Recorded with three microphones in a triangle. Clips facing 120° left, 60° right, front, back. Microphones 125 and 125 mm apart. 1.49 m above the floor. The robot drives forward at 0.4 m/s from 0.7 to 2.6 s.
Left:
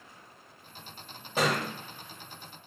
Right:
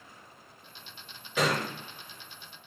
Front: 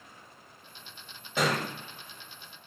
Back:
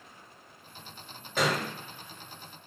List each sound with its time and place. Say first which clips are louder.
1.4 s a thud: even, even; 85° left, 1.9 m; by 1.6 s 90° left, 1.9 m